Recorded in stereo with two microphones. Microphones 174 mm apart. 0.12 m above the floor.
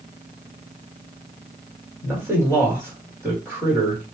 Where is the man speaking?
15° right (ahead or behind), 1.7 m.